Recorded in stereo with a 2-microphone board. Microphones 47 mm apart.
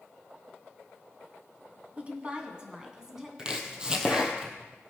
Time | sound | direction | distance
2.0 | a woman speaking | 30° right (ahead or behind) | 2.0 m
3.4 | chopping | 20° right (ahead or behind) | 1.7 m